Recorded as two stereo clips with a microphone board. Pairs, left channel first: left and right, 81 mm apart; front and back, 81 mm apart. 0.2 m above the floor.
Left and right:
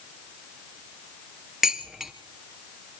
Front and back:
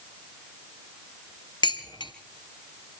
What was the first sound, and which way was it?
Dishes clattering, 5° right.